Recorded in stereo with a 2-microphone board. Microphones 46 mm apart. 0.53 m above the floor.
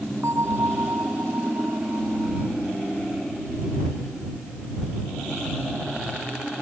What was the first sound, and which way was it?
A bell, 85° right.